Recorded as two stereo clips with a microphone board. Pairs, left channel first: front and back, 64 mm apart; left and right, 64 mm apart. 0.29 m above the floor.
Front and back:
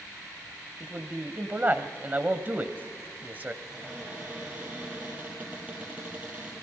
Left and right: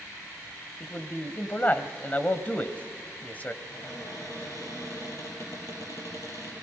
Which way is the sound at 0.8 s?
135° left.